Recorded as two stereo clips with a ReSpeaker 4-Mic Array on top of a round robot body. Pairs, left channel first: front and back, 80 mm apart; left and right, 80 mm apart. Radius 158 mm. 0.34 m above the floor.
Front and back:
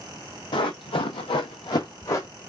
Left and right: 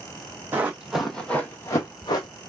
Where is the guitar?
I don't hear a guitar.